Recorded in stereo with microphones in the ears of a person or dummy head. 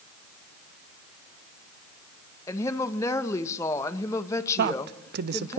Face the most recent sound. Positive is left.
turn(degrees=-55)  # may be behind; listen again after turning